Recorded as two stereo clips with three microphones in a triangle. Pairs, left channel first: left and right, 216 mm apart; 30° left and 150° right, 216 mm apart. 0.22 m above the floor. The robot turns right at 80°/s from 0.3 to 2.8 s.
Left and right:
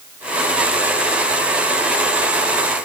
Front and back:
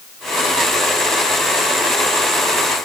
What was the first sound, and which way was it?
Only background noise.